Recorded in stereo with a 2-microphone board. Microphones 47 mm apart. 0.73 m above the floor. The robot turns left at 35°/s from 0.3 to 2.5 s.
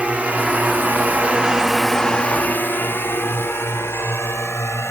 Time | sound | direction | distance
0.0 | a drone | 30° right (ahead or behind) | ?